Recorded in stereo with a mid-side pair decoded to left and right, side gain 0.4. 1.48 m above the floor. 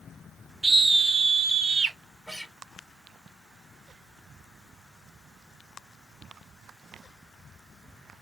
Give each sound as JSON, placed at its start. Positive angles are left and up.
{"t": 0.6, "sound": "a scream", "azimuth_deg": -30, "distance_m": 0.9}
{"t": 2.3, "sound": "a guitar", "azimuth_deg": -5, "distance_m": 0.9}